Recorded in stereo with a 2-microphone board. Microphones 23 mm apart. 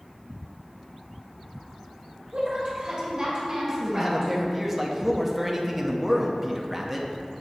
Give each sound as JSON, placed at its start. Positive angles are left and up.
{"t": 2.3, "sound": "a woman speaking", "side_deg": -40, "distance_m": 1.4}
{"t": 3.7, "sound": "a man speaking", "side_deg": -5, "distance_m": 0.7}